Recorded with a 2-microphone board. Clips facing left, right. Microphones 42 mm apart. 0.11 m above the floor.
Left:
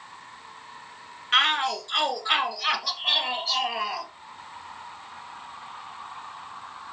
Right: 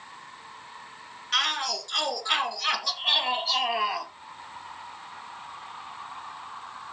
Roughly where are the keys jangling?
I don't hear keys jangling.